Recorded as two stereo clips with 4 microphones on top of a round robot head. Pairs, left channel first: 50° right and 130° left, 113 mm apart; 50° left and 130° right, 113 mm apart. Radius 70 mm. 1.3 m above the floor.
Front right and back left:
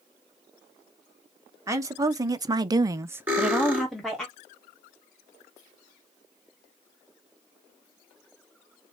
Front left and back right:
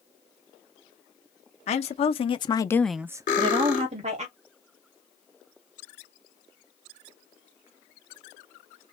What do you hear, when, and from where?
1.7 s a woman speaking: 65° left, 1.2 m; by 4.3 s 135° right, 1.2 m
3.3 s cutlery clinking: 55° left, 2.5 m